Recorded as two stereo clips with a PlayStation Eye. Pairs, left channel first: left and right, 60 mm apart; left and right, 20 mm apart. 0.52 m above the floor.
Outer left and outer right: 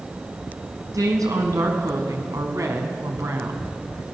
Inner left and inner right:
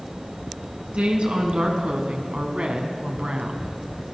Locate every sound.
0.9 s a woman speaking: 75° right (ahead or behind), 5.5 m; by 3.7 s 55° right (ahead or behind), 4.5 m